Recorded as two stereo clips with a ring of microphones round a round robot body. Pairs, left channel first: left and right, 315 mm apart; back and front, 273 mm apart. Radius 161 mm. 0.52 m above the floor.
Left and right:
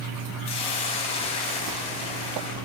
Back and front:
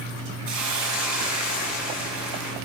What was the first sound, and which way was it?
A hiss, 20° left.